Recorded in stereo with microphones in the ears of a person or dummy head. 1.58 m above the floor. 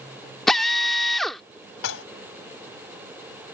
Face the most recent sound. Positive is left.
turn(degrees=80)